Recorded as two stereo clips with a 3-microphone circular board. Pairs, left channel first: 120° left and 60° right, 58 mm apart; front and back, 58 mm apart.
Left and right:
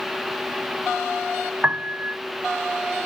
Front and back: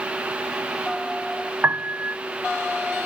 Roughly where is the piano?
Behind right.